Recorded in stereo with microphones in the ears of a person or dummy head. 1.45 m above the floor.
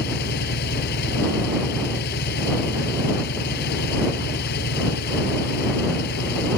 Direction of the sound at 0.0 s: 60° left (ahead or behind).